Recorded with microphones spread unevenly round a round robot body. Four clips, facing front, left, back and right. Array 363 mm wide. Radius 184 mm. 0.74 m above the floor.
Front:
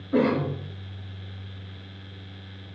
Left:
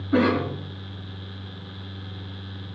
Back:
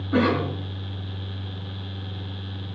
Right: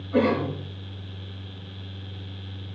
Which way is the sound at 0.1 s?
130° left.